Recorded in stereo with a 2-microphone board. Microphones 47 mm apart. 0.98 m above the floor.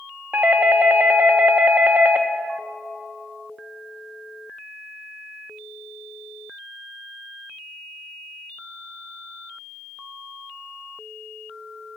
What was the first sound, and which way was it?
A doorbell, 40° right (ahead or behind).